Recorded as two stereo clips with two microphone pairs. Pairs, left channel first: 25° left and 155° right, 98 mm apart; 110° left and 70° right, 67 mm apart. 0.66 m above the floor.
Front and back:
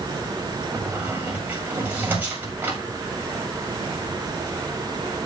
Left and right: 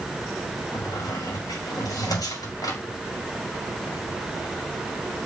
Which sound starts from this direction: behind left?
A squeak, at 0.7 s.